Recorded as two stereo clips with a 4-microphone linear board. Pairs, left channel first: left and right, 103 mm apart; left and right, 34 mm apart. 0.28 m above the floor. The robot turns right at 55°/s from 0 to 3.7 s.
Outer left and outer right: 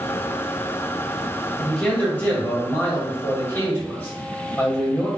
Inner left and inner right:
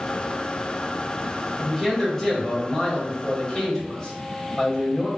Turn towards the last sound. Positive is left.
turn(degrees=20)  # may be behind; listen again after turning